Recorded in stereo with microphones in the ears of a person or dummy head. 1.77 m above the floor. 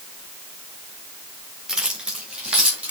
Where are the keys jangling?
5° right (ahead or behind), 1.6 m.